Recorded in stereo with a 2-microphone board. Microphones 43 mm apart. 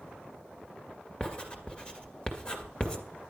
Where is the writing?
25° left (ahead or behind), 2 m.